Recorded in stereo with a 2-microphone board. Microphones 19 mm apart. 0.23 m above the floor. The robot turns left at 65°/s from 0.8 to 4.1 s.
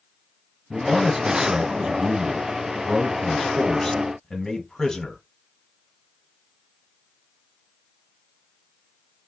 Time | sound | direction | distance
0.7 | a man speaking | 10° right | 1.4 m